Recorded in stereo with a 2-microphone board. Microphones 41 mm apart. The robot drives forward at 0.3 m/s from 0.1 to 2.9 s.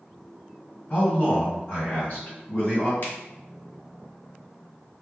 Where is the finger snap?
45° left (ahead or behind), 1.6 m.